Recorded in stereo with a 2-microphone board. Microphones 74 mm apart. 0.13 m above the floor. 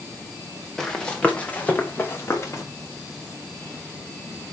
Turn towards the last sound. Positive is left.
turn(degrees=40)  # may be behind; listen again after turning